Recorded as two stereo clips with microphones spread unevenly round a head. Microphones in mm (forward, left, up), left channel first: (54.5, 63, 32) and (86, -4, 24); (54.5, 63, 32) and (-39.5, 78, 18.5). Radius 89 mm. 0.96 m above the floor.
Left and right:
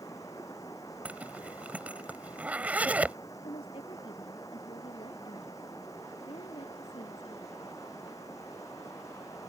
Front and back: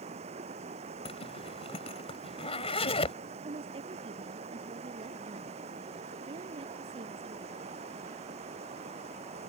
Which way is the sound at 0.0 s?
175° right.